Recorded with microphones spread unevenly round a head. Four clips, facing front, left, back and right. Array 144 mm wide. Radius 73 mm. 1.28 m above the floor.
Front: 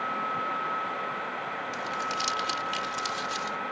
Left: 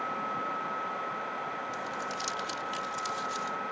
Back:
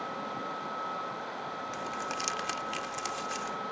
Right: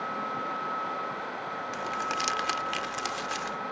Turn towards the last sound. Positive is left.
turn(degrees=-95)